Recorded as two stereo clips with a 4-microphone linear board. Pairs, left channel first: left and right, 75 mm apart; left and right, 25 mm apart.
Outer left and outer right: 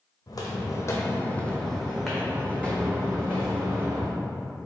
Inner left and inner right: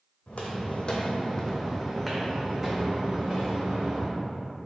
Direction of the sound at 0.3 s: 60° left (ahead or behind).